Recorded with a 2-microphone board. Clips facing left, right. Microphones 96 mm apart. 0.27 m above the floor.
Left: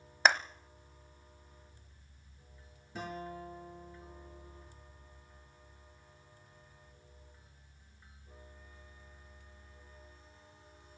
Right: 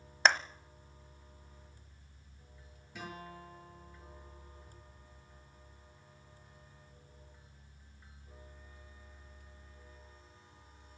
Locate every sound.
0.2 s a clap: 5° left (ahead or behind), 1.0 m
3.0 s a guitar: 35° left (ahead or behind), 6.5 m